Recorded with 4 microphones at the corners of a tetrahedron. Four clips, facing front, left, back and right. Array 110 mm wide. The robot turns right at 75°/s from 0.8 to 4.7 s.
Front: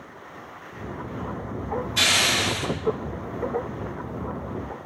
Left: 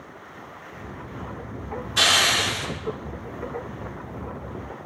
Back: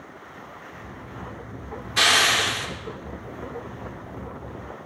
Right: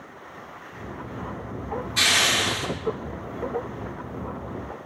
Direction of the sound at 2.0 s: 150° left.